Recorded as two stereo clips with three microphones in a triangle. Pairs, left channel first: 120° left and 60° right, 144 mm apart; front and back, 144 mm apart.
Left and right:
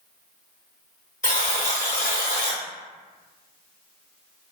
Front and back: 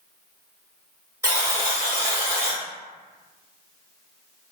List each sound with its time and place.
1.2 s a buzzer: 110° left, 1.5 m